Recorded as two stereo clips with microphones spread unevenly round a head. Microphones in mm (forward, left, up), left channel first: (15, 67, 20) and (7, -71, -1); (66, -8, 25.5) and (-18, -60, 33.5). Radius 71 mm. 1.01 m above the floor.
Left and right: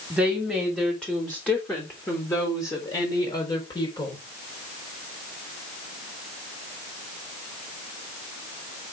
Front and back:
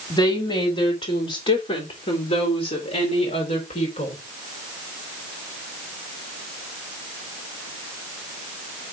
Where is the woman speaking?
10° right, 3 m; by 4.2 s 25° left, 4 m.